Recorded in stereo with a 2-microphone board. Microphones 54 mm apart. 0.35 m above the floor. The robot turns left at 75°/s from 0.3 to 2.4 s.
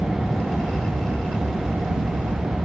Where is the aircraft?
75° left (ahead or behind); by 2.6 s 65° right (ahead or behind).